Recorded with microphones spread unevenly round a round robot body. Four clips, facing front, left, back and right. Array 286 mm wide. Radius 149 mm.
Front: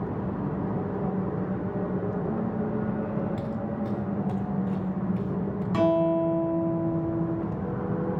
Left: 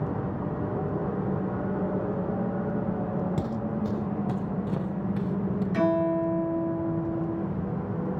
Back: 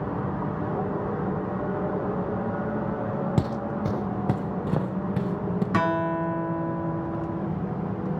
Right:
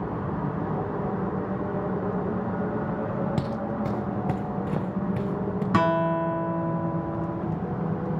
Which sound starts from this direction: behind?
Footsteps, at 3.4 s.